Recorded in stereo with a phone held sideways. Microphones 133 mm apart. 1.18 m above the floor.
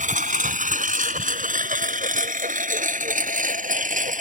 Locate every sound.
0.0 s a lawn mower: 75° right (ahead or behind)